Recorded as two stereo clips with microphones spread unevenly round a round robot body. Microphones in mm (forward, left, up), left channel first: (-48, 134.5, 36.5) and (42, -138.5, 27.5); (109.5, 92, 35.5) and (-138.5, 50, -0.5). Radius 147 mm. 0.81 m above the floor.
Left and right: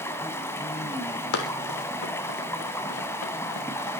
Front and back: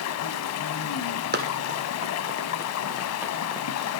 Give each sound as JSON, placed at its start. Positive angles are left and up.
{"t": 0.0, "sound": "running water", "azimuth_deg": 25, "distance_m": 1.9}
{"t": 1.3, "sound": "running footsteps", "azimuth_deg": 135, "distance_m": 2.5}